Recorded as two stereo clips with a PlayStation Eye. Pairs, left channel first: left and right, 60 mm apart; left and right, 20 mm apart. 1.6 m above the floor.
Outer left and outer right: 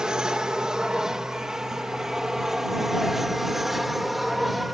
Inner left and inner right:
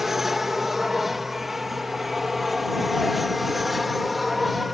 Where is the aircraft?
15° right (ahead or behind); by 4.7 s 5° right (ahead or behind).